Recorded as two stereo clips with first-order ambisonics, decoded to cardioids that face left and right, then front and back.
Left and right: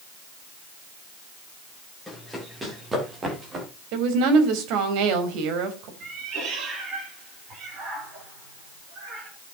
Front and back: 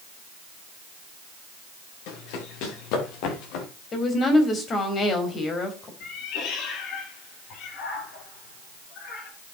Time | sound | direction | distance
2.1 | running footsteps | straight ahead | 5.5 m
3.9 | a woman speaking | 65° right | 3.5 m
6.0 | a cat meowing | 40° right | 8 m